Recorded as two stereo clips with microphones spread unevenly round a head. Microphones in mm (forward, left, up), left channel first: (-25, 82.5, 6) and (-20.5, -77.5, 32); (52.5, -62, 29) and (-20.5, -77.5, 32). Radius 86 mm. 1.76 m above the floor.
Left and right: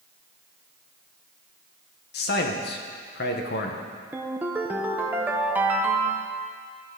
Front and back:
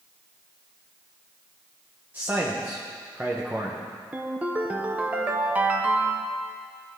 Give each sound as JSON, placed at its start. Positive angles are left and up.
{"t": 2.1, "sound": "a man speaking", "azimuth_deg": 115, "distance_m": 1.2}
{"t": 4.1, "sound": "a ringtone", "azimuth_deg": -130, "distance_m": 0.7}